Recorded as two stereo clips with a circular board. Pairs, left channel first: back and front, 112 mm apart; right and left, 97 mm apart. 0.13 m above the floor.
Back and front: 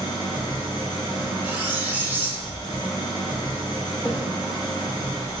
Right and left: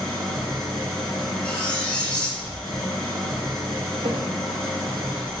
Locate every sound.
0.0 s an engine running: 175° right, 1.0 m
1.4 s cutlery clinking: 40° right, 0.7 m
4.0 s a thud: 110° left, 0.8 m